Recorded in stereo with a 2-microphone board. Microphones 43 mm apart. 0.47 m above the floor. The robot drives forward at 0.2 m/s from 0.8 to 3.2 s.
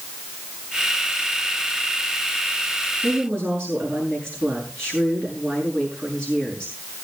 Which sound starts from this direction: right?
A woman speaking, at 3.0 s.